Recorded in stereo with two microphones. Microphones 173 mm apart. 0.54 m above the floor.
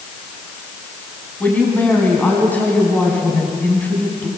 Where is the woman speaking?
10° left (ahead or behind), 5 m.